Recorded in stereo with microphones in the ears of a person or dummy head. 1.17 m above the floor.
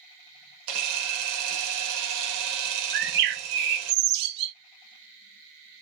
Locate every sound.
0.7 s a camera shutter: 75° right (ahead or behind), 1.2 m
2.9 s a bird: 50° right (ahead or behind), 0.6 m